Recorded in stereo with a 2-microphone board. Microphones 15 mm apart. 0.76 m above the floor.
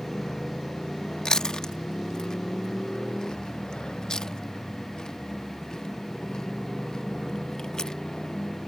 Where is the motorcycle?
85° left; by 8.7 s 70° left (ahead or behind).